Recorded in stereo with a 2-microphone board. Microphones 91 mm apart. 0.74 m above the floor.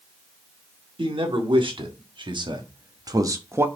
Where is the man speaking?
70° right (ahead or behind), 2 m; by 3.7 s 25° right (ahead or behind), 0.8 m.